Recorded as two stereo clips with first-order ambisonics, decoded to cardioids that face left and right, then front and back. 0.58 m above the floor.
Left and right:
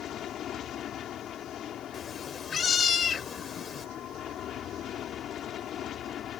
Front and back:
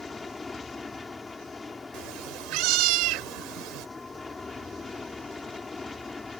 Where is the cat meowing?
155° left.